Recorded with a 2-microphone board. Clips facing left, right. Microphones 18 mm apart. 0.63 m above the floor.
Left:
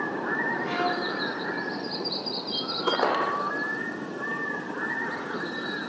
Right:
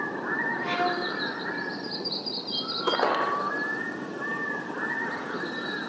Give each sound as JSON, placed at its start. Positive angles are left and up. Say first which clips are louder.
{"t": 0.6, "sound": "a violin", "louder": "even", "side_deg": -50, "distance_m": 9.0}